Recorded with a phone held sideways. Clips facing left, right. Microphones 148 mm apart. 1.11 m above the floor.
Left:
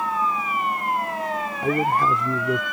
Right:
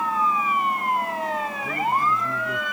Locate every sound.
1.6 s a man speaking: 80° left